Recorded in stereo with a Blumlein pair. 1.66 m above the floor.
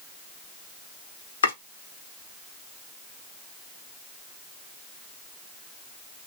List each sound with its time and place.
1.4 s chopping: 65° left, 1.2 m